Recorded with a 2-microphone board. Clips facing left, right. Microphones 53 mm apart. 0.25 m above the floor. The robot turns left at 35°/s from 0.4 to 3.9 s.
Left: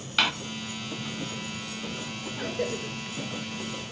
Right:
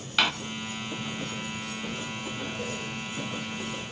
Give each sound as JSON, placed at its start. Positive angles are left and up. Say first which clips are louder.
{"t": 0.2, "sound": "a door slam", "louder": "even", "side_deg": 0, "distance_m": 0.9}
{"t": 2.4, "sound": "a cough", "louder": "left 7 dB", "side_deg": 70, "distance_m": 4.0}